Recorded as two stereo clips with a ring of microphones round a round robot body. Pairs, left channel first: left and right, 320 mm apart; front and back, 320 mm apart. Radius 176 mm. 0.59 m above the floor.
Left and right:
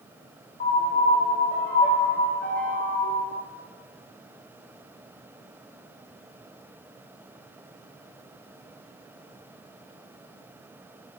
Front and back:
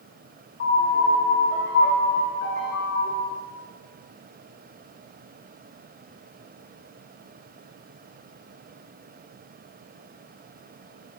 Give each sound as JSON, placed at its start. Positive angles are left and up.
{"t": 0.6, "sound": "a piano", "azimuth_deg": 30, "distance_m": 0.9}